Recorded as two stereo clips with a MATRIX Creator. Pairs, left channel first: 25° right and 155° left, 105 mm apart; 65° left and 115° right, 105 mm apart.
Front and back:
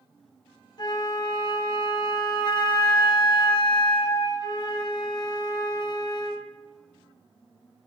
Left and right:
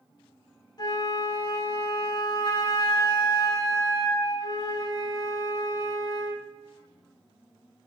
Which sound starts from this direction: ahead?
A flute, at 0.8 s.